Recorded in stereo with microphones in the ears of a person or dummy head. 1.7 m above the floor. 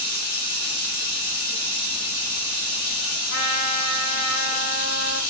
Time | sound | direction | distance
0.0 | running water | 50° left (ahead or behind) | 1.0 m
3.3 | a trumpet | 50° left (ahead or behind) | 0.6 m